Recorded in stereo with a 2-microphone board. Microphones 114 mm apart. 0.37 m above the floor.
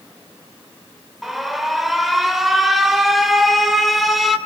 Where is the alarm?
Centre (ahead or behind), 1.9 m.